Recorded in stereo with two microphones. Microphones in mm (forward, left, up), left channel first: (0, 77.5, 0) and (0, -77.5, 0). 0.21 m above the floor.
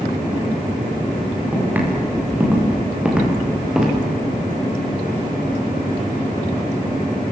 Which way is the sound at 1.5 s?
10° right (ahead or behind).